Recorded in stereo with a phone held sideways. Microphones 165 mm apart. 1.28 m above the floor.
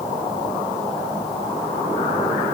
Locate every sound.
Only background noise.